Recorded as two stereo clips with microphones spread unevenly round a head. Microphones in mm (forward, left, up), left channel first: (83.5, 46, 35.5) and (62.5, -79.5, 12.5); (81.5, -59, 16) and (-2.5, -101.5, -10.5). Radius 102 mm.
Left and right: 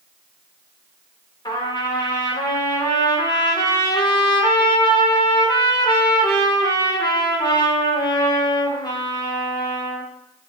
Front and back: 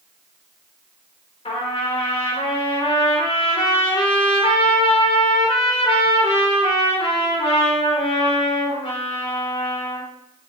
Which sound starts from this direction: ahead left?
A trumpet, at 1.4 s.